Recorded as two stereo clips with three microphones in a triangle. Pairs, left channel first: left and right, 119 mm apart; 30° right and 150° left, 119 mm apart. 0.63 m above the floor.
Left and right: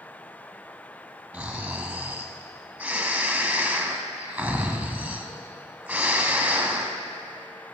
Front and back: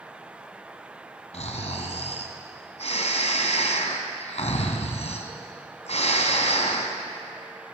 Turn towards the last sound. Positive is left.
turn(degrees=-10)